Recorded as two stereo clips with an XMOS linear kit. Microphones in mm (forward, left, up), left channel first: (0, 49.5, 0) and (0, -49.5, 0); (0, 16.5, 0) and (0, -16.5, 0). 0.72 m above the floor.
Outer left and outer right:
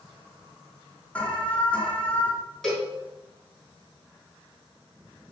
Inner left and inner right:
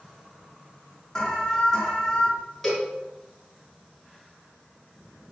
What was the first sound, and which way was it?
An alarm, 15° left (ahead or behind).